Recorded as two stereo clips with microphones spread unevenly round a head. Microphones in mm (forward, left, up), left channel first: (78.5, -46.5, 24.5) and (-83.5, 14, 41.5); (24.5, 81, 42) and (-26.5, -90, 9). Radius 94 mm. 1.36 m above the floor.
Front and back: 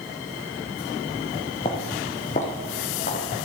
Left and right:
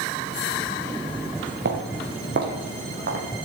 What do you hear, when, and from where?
1.6 s footsteps: 75° right, 1.8 m; by 3.2 s 65° right, 3 m